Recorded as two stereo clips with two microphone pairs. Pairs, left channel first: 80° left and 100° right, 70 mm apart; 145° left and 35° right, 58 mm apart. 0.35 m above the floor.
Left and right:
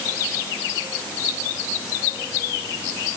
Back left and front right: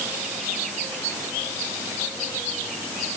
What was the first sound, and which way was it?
Only background noise.